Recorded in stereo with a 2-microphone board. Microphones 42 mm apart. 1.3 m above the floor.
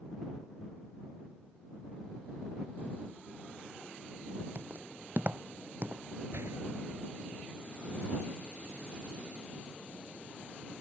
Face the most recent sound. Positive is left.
turn(degrees=-85)